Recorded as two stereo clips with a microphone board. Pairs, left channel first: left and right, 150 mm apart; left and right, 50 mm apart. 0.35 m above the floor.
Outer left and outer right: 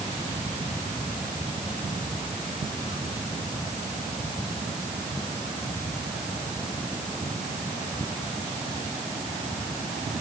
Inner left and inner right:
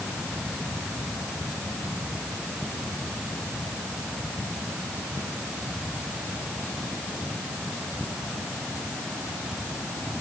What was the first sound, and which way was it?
Only background noise.